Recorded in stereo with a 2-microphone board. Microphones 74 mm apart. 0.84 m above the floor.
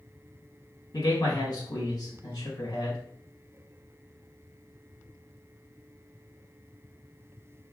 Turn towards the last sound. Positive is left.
turn(degrees=70)  # may be behind; listen again after turning